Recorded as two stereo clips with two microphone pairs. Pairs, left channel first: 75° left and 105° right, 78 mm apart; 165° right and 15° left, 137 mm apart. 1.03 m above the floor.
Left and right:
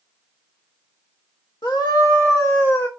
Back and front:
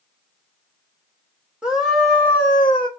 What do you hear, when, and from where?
1.6 s a scream: 100° left, 1.1 m; by 2.9 s 145° left, 1.0 m